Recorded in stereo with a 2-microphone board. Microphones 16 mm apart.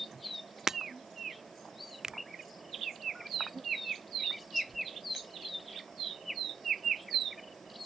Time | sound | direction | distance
0.7 | breaking glass | 30° right (ahead or behind) | ?
2.0 | a finger snap | 40° right (ahead or behind) | ?